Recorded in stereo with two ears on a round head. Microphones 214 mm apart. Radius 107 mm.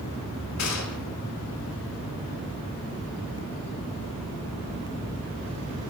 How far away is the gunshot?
About 4.5 m.